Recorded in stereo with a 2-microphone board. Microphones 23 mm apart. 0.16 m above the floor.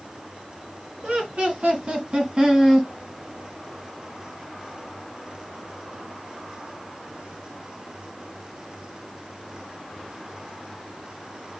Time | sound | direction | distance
1.0 | laughter | 50° right (ahead or behind) | 2.5 m